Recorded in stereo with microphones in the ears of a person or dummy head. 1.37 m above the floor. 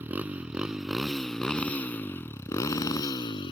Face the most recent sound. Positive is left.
turn(degrees=30)  # may be behind; listen again after turning